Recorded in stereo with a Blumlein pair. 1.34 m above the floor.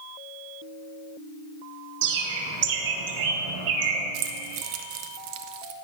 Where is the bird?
50° right, 0.9 m.